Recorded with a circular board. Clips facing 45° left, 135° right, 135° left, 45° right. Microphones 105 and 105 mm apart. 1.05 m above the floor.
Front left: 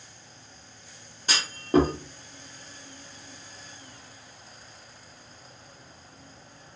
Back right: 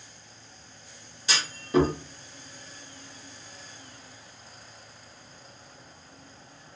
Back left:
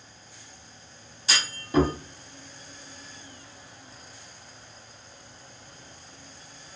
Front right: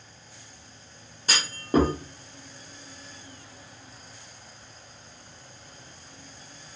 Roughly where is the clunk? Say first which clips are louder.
Front left 2 dB, front right 3 dB; ahead.